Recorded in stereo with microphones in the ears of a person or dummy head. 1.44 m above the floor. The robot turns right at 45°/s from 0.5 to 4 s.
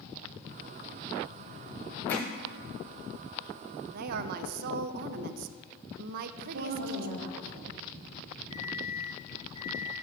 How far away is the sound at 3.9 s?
About 0.6 m.